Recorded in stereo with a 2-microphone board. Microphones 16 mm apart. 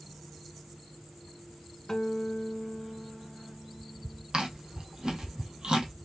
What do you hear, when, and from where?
1.9 s a guitar: 35° left (ahead or behind), 0.9 m
4.3 s chewing: 75° right (ahead or behind), 1.4 m